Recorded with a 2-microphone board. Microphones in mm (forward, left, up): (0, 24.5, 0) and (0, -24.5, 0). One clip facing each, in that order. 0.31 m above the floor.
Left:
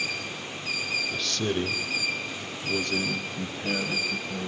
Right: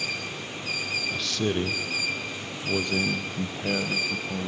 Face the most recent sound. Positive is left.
turn(degrees=-15)  # may be behind; listen again after turning